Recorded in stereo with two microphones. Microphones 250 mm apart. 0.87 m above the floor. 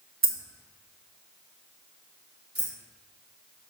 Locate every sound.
0.2 s keys jangling: 55° right (ahead or behind), 0.8 m
2.5 s keys jangling: 65° right (ahead or behind), 2.5 m